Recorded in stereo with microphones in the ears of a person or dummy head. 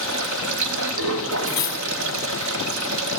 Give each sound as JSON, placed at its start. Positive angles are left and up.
{"t": 0.0, "sound": "running water", "side_deg": -75, "distance_m": 1.0}
{"t": 1.5, "sound": "cutlery clinking", "side_deg": 20, "distance_m": 0.7}